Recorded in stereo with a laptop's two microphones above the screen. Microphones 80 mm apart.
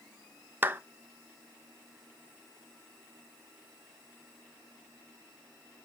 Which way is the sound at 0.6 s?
25° right (ahead or behind).